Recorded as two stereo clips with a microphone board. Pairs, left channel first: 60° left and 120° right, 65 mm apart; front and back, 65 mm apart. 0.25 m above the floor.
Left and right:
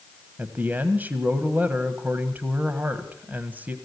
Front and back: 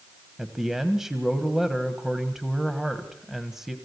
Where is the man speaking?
100° right, 1.5 m.